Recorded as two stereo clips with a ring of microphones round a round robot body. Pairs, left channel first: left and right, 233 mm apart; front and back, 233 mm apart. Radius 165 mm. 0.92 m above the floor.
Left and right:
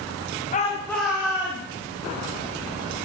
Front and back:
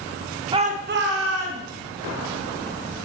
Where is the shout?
120° left, 0.9 m; by 1.6 s 160° right, 1.6 m.